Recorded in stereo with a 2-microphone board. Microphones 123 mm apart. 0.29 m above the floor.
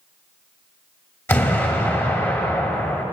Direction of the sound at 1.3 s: 20° left (ahead or behind).